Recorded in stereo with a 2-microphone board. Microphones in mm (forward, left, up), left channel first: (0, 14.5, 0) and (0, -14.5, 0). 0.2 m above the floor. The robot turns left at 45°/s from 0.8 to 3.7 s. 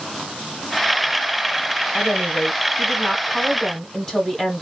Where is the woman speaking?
20° left (ahead or behind), 1.1 m; by 4.6 s 15° left (ahead or behind), 1.1 m.